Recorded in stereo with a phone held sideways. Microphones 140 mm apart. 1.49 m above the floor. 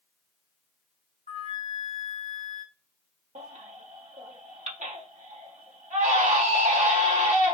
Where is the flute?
80° left, 2 m.